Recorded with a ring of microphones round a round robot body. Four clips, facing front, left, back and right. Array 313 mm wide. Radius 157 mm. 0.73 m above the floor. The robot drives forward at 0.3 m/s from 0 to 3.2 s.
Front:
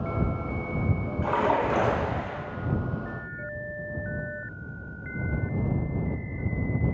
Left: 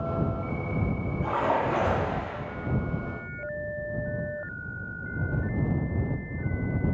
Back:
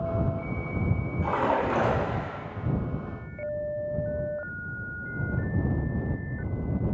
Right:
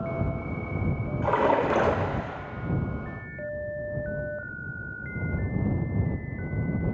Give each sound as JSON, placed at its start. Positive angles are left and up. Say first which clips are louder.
{"t": 1.2, "sound": "a splash", "louder": "right 3 dB, front 1 dB", "azimuth_deg": -80, "distance_m": 0.8}